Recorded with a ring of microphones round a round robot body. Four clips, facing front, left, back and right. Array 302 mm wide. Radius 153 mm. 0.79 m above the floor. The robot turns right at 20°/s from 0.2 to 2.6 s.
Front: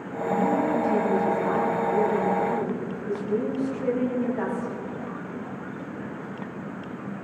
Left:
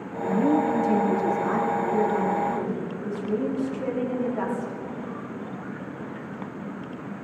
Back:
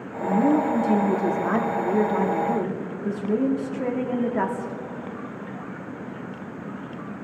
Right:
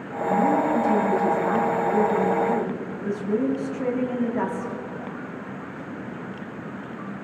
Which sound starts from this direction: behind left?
A woman speaking, at 0.2 s.